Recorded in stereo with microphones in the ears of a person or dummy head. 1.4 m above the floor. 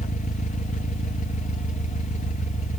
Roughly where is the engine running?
Left.